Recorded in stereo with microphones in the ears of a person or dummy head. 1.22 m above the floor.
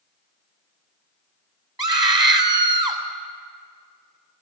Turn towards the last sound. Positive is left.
turn(degrees=-25)  # may be behind; listen again after turning